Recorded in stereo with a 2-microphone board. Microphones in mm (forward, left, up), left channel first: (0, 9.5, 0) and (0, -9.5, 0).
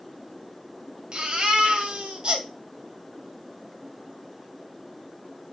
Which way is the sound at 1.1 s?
45° right (ahead or behind).